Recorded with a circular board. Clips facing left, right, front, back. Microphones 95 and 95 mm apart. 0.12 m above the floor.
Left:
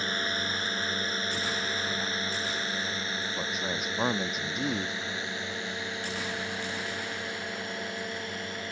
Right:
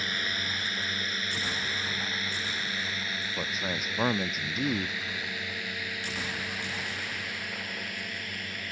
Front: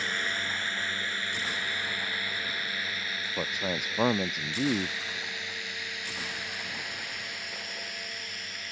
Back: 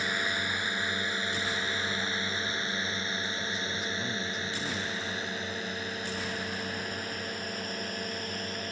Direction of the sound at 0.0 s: 115° left.